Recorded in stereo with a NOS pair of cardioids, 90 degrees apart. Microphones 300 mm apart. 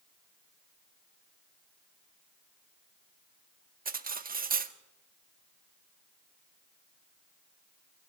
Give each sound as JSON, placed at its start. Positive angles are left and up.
{"t": 3.9, "sound": "cutlery clinking", "azimuth_deg": -30, "distance_m": 1.5}